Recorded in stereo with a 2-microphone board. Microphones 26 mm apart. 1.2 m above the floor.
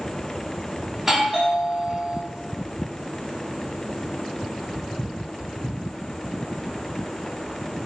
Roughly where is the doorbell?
Centre.